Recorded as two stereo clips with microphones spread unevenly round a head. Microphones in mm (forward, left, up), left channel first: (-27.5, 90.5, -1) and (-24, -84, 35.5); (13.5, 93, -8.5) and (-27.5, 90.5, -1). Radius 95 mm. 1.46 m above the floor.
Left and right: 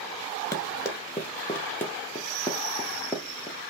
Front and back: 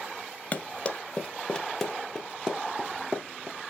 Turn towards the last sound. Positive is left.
turn(degrees=-165)